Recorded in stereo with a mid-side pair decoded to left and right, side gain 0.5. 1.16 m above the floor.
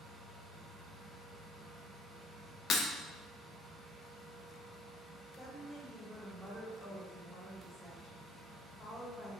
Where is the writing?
I don't hear writing.